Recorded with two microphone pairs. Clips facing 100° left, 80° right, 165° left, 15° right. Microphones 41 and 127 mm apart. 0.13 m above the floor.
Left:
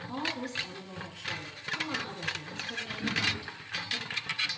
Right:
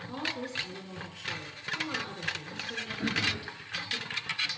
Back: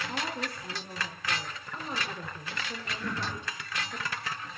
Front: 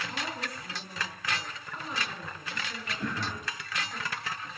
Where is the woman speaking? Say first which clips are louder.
Left 1 dB, back 2 dB; 155° right, 1.5 m.